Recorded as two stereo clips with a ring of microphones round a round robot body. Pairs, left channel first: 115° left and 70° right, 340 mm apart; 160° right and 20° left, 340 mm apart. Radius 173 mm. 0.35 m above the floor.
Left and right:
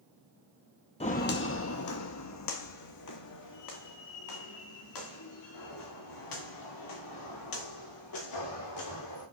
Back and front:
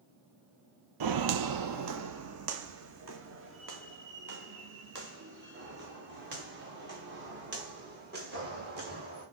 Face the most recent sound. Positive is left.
turn(degrees=85)